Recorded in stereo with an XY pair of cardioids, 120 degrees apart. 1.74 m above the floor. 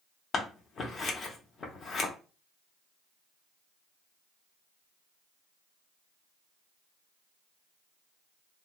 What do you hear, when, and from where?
0.3 s scissors: 45° left, 0.6 m